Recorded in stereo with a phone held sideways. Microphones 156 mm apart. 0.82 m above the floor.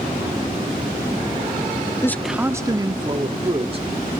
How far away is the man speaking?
About 0.6 m.